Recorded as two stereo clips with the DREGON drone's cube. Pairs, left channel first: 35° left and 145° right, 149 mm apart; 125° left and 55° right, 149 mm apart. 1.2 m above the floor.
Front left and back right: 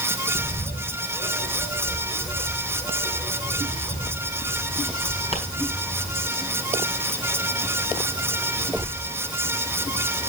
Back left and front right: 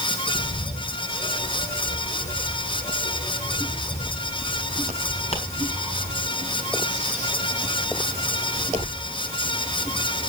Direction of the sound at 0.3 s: 80° left.